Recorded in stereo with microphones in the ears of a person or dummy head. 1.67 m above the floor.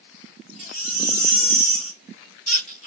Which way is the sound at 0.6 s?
45° left (ahead or behind).